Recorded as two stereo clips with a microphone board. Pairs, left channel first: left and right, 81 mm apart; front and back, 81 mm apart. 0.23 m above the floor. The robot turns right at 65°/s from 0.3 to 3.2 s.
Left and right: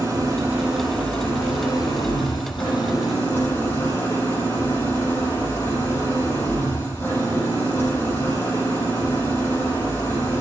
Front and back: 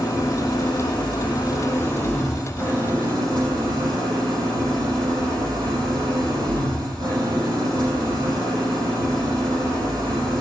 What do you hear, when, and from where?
0.0 s an engine running: 40° right, 6.5 m; by 10.4 s 150° left, 6.5 m